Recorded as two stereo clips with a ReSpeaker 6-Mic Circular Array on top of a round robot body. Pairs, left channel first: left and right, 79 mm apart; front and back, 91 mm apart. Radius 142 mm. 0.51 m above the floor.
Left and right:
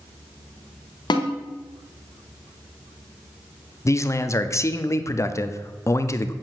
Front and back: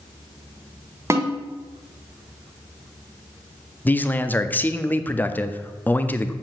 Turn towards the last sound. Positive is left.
turn(degrees=60)